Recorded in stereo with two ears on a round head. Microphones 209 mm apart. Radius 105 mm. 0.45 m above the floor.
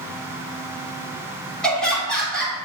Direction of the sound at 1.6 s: 5° left (ahead or behind).